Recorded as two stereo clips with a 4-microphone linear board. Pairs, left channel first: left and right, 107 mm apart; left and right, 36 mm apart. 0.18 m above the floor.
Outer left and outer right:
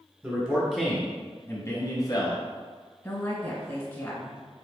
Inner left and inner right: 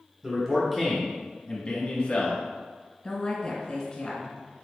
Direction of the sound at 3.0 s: 25° left (ahead or behind).